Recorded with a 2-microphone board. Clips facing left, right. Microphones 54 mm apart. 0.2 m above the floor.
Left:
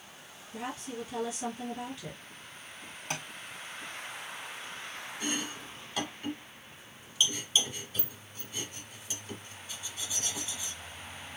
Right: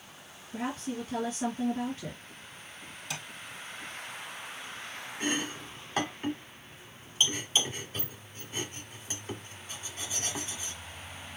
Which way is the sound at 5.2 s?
40° right (ahead or behind).